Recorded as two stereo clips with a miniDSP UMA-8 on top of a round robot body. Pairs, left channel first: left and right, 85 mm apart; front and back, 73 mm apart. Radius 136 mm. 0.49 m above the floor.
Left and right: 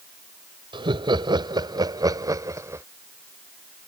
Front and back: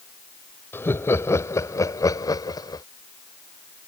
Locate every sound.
0.7 s laughter: 60° right; by 2.9 s 30° right